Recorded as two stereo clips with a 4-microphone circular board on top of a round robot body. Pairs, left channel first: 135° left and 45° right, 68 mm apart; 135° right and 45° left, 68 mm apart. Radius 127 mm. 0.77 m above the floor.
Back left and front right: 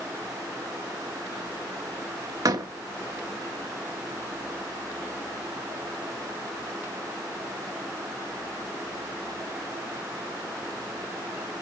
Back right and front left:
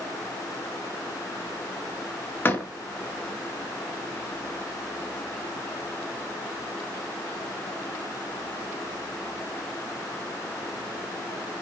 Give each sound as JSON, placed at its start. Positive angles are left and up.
{"t": 2.5, "sound": "a door slam", "azimuth_deg": -75, "distance_m": 1.8}